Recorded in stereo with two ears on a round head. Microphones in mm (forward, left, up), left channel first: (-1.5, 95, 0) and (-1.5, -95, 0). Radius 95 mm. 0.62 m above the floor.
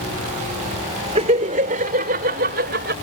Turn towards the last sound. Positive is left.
turn(degrees=-50)  # may be behind; listen again after turning